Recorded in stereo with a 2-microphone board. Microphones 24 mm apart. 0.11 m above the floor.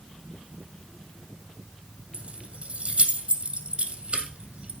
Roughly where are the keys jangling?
Right.